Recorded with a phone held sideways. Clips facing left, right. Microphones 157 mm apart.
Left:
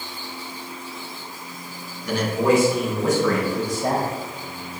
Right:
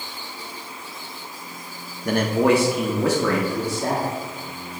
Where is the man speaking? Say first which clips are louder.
Right 1 dB; 50° right (ahead or behind), 0.9 m; by 4.1 s 80° right, 2 m.